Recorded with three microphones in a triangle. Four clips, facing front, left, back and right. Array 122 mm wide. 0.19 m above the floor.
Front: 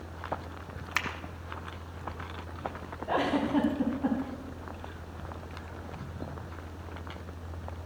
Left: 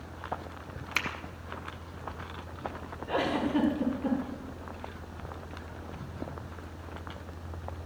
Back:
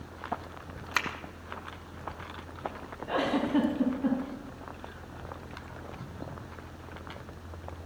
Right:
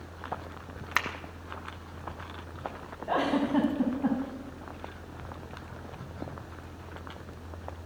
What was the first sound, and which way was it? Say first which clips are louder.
A finger snap: right 4 dB, back 2 dB; 115° right.